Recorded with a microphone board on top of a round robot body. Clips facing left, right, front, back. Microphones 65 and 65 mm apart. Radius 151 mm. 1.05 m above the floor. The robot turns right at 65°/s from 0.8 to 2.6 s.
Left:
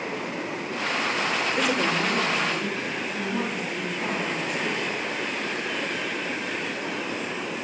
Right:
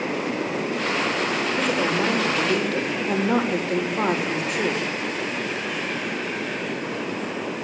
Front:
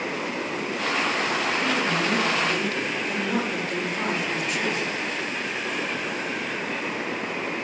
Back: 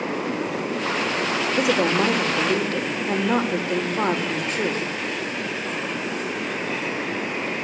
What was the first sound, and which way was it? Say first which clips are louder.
A woman speaking: right 2 dB, back 4 dB; 165° left.